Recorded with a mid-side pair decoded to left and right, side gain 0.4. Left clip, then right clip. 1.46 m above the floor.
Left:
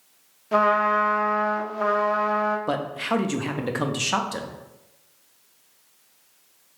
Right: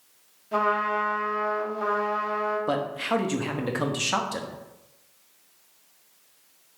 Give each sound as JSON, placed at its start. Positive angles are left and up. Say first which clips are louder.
{"t": 0.5, "sound": "a trumpet", "louder": "left 5 dB", "azimuth_deg": 65, "distance_m": 0.6}
{"t": 2.7, "sound": "a man speaking", "louder": "left 1 dB", "azimuth_deg": 10, "distance_m": 0.5}